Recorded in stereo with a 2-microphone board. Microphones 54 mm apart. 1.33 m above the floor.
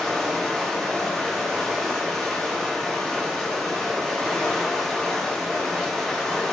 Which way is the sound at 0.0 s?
10° left (ahead or behind).